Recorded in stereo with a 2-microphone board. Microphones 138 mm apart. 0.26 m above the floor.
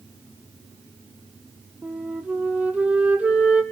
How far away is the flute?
About 1.7 m.